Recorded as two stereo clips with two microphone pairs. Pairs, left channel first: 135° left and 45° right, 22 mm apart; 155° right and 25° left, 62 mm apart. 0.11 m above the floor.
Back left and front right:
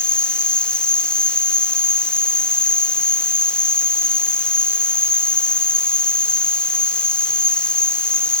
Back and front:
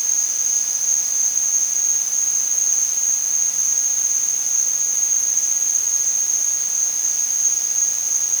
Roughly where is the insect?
Behind.